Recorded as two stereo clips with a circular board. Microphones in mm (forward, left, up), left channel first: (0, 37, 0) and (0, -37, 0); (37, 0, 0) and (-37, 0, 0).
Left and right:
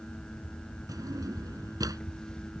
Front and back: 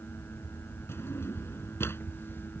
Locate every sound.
0.9 s a drawer: 55° right